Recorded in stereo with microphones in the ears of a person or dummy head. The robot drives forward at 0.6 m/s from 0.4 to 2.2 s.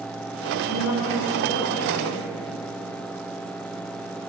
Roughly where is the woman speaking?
Left.